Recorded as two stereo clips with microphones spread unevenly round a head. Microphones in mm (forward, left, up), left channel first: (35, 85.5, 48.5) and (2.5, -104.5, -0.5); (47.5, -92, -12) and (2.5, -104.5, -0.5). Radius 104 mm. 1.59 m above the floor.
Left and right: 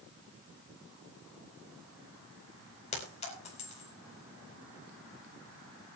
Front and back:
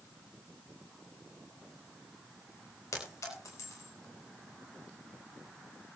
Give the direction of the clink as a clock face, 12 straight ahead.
11 o'clock.